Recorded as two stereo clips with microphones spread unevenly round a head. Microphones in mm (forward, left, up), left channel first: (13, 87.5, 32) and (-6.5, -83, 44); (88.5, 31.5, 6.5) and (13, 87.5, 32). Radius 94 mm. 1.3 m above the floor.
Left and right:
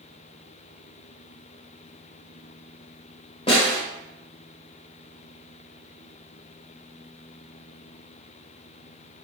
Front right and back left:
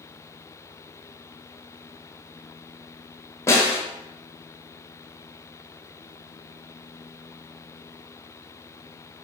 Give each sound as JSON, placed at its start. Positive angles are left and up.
{"t": 3.5, "sound": "a snare drum", "azimuth_deg": 30, "distance_m": 1.3}